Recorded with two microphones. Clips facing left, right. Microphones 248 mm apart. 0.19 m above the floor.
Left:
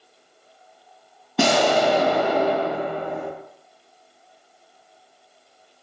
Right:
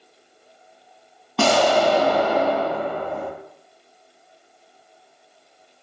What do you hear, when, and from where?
1.4 s an explosion: 20° left (ahead or behind), 0.5 m